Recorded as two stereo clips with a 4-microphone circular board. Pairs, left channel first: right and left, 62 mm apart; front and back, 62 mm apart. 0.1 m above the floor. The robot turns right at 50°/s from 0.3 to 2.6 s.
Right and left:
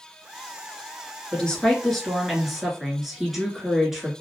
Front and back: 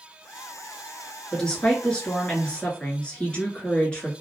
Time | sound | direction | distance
1.3 | a woman speaking | 50° right | 1.1 m